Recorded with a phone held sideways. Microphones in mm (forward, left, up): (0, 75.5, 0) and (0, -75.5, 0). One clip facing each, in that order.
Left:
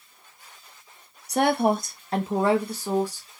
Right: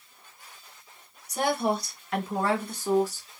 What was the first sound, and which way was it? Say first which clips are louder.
A woman speaking: left 5 dB; 70° left (ahead or behind).